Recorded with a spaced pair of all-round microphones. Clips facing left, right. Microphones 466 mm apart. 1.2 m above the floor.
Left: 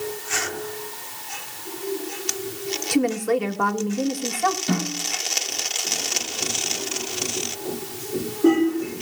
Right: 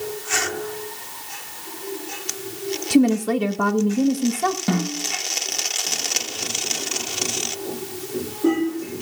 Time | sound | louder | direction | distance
2.9 | a woman speaking | right 4 dB | 55° right (ahead or behind) | 1.2 m
4.7 | a snare drum | right 3 dB | 70° right (ahead or behind) | 9.5 m